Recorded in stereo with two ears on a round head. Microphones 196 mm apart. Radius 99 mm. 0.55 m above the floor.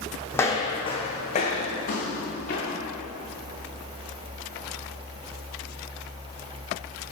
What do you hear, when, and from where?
0.3 s footsteps: 10° left (ahead or behind), 1.2 m; by 2.8 s 50° left (ahead or behind), 3 m